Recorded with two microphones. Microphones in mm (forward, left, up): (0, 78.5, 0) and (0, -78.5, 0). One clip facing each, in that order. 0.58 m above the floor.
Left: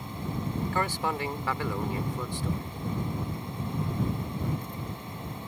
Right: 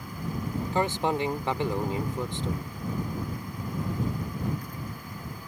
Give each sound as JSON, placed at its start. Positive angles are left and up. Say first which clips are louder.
{"t": 0.7, "sound": "a man speaking", "louder": "right 6 dB", "side_deg": -25}